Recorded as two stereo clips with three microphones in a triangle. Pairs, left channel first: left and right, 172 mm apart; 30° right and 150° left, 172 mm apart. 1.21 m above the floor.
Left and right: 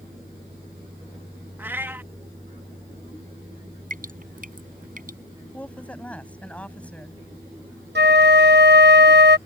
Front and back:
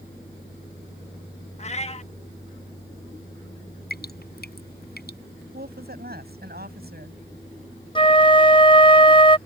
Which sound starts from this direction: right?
A flute, at 8.0 s.